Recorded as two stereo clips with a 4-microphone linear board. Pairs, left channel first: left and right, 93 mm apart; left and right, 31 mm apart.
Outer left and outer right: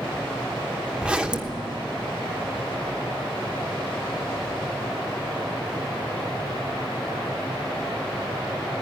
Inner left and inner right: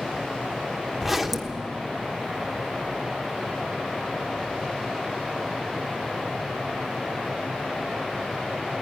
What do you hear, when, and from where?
1.0 s a zipper: 10° right (ahead or behind), 1.1 m